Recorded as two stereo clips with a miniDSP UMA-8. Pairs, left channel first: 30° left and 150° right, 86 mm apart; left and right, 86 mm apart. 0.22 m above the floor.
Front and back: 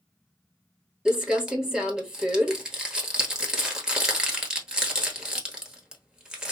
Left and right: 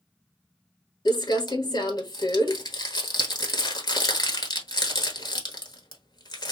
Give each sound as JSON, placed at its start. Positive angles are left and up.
{"t": 1.1, "sound": "crumpling", "azimuth_deg": 125, "distance_m": 1.2}